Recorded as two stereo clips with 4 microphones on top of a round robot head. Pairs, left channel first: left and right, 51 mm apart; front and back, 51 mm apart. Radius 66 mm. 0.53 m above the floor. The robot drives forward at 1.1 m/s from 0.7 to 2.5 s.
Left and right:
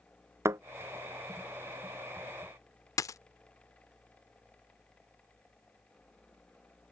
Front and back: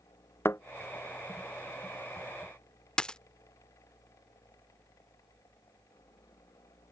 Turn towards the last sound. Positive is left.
turn(degrees=75)